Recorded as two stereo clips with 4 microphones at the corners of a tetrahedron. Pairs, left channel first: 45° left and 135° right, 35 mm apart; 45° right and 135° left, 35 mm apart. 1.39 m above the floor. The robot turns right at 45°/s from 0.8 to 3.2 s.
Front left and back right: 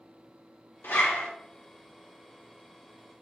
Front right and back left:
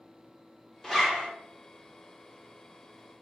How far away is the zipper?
About 0.9 m.